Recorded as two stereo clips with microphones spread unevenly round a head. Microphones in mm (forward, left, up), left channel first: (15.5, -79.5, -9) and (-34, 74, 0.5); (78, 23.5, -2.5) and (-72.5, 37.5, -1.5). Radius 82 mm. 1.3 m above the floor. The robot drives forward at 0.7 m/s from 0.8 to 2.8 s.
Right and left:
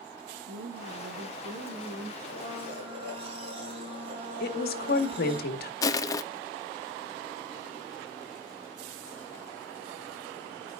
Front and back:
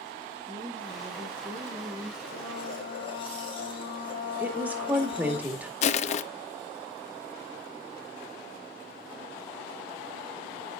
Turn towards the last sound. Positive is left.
turn(degrees=-5)